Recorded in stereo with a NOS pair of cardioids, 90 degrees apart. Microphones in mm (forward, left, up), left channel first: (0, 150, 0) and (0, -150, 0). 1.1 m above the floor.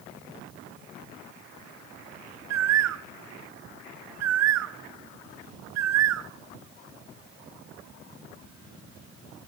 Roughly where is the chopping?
No chopping in this recording.